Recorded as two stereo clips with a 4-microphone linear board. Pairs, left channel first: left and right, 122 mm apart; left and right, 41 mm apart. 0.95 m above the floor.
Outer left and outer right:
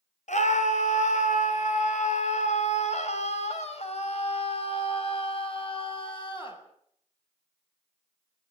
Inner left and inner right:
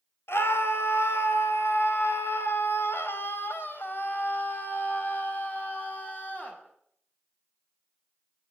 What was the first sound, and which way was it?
A scream, 80° left.